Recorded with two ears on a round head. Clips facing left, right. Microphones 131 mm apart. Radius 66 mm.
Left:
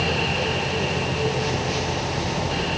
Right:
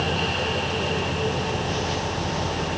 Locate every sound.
Only background noise.